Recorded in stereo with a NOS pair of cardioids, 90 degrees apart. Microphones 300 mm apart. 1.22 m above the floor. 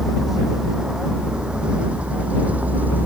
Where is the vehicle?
Straight ahead; by 3.1 s 5° right.